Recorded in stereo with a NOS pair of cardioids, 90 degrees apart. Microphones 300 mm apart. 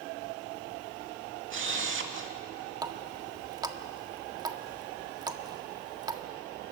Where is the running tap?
15° right, 1.5 m.